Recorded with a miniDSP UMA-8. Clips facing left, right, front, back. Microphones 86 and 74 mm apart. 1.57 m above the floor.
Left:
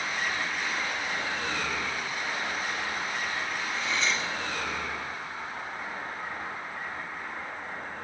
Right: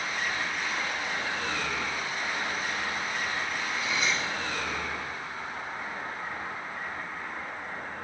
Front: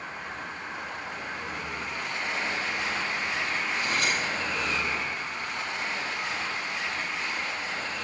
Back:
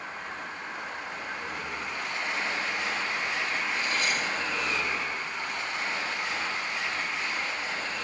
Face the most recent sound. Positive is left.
turn(degrees=-10)